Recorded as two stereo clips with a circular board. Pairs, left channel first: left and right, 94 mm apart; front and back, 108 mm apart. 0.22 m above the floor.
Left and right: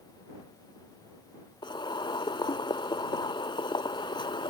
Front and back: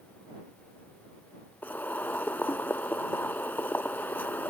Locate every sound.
1.6 s boiling: 70° left